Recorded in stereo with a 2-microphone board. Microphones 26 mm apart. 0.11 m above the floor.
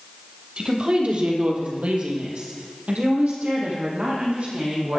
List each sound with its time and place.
0.6 s a woman speaking: 45° right (ahead or behind), 3.5 m; by 5.0 s 60° right (ahead or behind), 6 m